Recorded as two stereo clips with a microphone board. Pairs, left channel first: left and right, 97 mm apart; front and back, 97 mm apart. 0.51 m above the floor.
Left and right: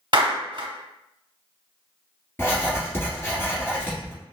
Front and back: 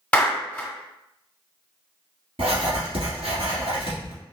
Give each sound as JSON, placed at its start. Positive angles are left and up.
{"t": 0.1, "sound": "a clap", "azimuth_deg": -70, "distance_m": 1.0}
{"t": 2.4, "sound": "writing", "azimuth_deg": 160, "distance_m": 1.8}